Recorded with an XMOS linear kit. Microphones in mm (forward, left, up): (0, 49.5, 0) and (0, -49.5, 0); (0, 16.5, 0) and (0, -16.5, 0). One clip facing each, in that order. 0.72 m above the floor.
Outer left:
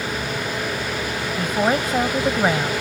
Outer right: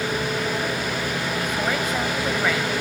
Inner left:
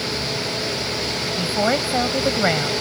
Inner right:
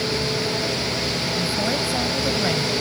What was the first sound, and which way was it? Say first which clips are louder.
A woman speaking: outer left 7 dB, inner left 6 dB; 35° left (ahead or behind).